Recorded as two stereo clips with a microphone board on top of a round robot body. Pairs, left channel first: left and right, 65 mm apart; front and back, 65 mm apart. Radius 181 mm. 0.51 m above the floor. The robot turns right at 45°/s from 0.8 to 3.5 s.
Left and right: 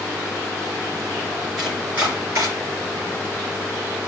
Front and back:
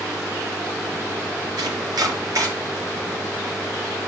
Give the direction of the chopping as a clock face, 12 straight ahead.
6 o'clock.